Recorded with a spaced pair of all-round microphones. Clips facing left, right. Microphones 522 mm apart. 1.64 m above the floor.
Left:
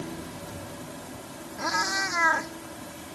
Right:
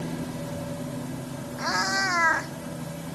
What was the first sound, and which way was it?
A machine running, 65° right (ahead or behind).